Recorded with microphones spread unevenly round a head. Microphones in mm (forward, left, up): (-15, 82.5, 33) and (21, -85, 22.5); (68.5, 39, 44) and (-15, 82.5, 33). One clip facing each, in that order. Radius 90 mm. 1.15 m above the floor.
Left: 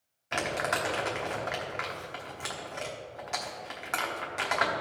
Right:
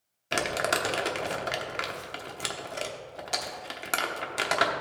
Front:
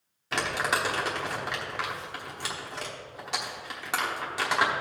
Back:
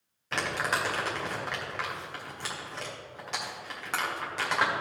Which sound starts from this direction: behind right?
Crumpling, at 0.3 s.